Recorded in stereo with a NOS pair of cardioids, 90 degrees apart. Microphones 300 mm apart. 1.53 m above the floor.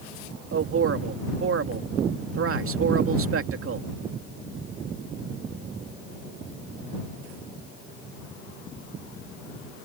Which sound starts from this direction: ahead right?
A man speaking, at 0.5 s.